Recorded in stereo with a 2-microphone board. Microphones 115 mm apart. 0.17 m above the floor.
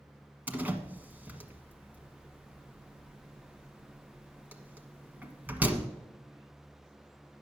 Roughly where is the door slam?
Centre.